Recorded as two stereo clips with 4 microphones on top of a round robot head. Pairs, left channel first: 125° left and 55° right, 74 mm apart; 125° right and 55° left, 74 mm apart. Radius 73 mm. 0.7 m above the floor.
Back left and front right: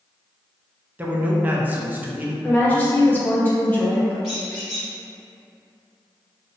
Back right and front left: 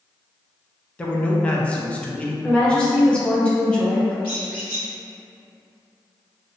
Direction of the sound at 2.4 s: 170° left.